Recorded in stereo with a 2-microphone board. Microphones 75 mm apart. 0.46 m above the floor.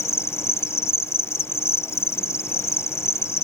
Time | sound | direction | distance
0.0 | an insect | 40° left (ahead or behind) | ?